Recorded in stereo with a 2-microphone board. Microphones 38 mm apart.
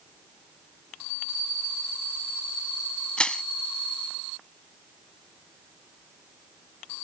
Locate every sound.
3.2 s crushing: 25° left (ahead or behind)